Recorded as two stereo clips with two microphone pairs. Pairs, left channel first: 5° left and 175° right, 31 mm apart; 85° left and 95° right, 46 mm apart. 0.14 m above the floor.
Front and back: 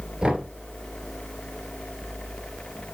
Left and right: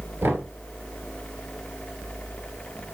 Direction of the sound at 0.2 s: 115° right.